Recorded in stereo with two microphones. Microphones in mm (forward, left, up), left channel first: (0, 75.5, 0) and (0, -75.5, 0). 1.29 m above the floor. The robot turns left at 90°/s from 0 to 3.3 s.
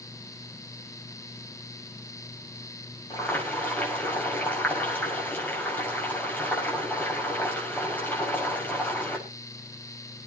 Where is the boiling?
30° left (ahead or behind), 6.5 m; by 9.2 s 10° left (ahead or behind), 6.5 m.